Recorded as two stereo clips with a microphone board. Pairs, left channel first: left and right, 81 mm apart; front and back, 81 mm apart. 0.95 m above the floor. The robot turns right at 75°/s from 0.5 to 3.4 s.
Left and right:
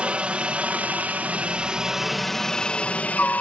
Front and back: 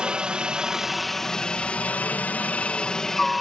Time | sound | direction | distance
0.0 | a helicopter | 125° right | ?